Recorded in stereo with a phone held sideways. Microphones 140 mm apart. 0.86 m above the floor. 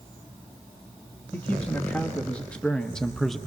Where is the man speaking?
10° left (ahead or behind), 1.6 m; by 3.4 s centre (ahead or behind), 0.7 m.